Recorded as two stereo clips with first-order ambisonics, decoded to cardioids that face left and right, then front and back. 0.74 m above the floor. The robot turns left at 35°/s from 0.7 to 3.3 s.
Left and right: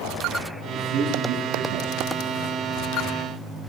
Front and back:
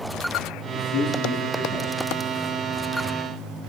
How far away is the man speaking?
About 6.5 m.